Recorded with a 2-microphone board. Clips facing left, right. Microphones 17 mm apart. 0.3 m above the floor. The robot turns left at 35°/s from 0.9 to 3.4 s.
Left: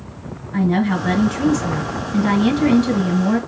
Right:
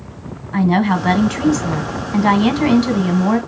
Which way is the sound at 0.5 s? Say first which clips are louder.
Right 3 dB; 50° right.